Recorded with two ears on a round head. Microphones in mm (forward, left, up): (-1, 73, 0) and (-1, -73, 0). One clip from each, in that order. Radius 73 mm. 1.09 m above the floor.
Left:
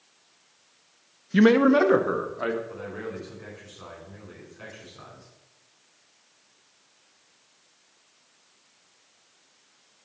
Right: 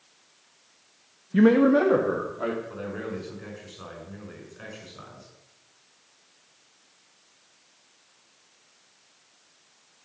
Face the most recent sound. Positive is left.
turn(degrees=-10)  # may be behind; listen again after turning